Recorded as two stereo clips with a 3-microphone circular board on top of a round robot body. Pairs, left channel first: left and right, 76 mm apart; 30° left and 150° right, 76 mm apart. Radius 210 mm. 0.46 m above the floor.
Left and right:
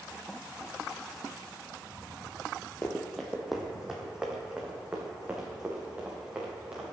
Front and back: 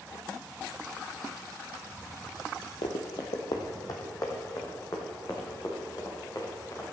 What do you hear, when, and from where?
2.8 s running footsteps: 25° left, 0.6 m; by 6.8 s 15° right, 4 m